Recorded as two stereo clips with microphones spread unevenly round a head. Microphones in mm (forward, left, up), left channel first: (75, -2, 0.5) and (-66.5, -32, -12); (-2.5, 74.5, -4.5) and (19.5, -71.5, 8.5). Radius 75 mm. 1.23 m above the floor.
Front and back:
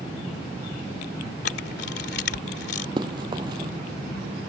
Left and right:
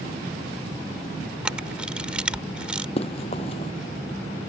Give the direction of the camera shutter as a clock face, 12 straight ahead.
12 o'clock.